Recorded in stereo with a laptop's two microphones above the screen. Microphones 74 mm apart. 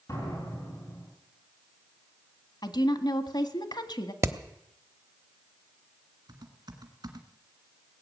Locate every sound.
0.1 s a door slam: 45° left (ahead or behind), 8.5 m
2.6 s a woman speaking: 70° left (ahead or behind), 1.4 m
4.2 s hammering: 40° right (ahead or behind), 1.1 m
6.3 s typing on a keyboard: 70° right (ahead or behind), 2.0 m